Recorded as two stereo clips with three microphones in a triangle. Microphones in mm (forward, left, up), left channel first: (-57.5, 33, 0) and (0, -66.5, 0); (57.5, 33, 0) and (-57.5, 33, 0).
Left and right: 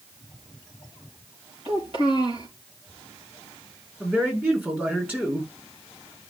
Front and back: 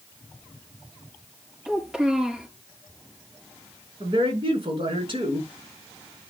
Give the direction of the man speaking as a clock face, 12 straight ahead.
4 o'clock.